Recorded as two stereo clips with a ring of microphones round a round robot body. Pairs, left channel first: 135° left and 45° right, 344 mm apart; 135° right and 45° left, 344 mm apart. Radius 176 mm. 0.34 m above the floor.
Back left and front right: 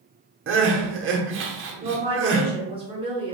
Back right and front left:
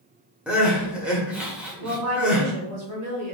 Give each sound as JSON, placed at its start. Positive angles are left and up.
{"t": 0.5, "sound": "crying", "azimuth_deg": -40, "distance_m": 0.9}
{"t": 1.8, "sound": "a woman speaking", "azimuth_deg": 25, "distance_m": 1.5}